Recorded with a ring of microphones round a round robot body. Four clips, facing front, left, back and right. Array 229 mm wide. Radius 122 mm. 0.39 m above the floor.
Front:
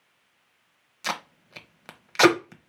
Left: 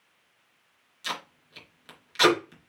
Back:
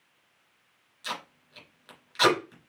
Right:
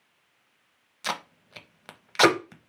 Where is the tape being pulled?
40° right, 1.0 m.